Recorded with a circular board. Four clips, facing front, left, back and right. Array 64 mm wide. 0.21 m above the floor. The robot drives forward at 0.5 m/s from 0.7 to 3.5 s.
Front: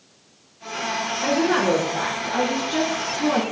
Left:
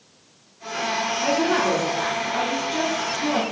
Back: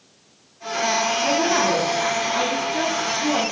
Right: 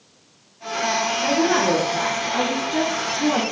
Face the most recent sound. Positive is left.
turn(degrees=-30)